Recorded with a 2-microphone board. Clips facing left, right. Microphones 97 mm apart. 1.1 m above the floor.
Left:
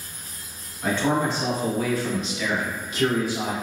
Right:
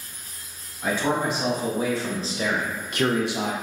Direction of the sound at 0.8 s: 10° right (ahead or behind).